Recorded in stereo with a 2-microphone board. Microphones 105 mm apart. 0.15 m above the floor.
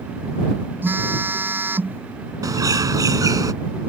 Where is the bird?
35° right (ahead or behind).